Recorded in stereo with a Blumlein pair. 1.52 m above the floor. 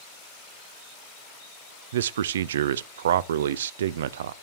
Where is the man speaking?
60° right, 0.5 m.